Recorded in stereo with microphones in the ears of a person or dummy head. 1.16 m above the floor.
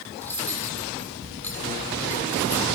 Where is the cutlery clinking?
10° left (ahead or behind), 1.7 m.